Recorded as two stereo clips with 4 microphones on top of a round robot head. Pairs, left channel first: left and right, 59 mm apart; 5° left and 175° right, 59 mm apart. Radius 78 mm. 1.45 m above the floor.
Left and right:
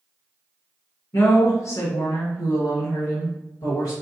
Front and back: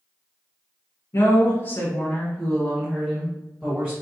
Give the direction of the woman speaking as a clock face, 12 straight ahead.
10 o'clock.